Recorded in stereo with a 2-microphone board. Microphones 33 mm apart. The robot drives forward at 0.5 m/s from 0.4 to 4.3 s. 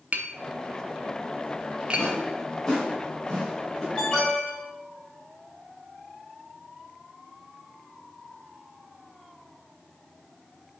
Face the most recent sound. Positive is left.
turn(degrees=15)  # may be behind; listen again after turning